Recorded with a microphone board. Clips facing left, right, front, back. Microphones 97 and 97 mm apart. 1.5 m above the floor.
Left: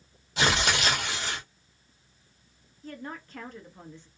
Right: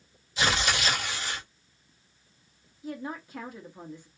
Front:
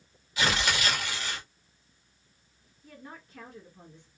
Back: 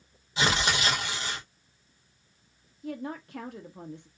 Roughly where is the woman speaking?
Behind.